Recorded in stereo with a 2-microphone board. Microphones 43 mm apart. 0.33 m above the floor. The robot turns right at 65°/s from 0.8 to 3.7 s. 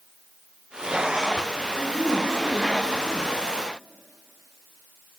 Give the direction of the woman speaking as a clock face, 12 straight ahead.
1 o'clock.